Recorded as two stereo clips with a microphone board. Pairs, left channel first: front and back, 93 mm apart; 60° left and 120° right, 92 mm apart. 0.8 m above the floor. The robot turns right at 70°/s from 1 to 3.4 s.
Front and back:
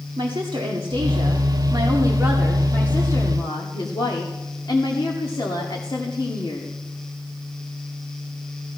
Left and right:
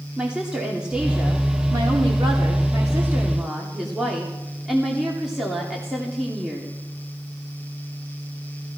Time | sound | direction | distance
0.2 | a woman speaking | 160° left | 2.5 m